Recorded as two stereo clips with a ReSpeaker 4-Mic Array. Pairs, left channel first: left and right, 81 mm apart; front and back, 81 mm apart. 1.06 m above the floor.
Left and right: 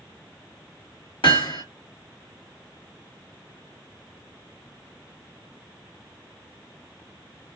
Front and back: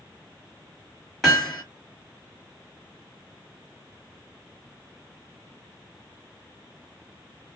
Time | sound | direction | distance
1.2 | hammering | 90° left | 1.6 m